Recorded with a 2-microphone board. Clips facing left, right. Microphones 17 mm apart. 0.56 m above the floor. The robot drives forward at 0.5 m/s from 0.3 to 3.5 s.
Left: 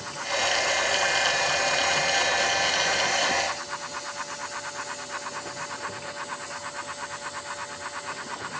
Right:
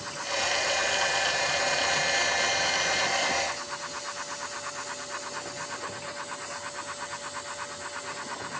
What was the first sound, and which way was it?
Only background noise.